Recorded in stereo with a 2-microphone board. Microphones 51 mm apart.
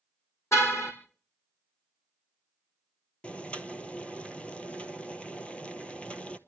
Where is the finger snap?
No finger snap in this recording.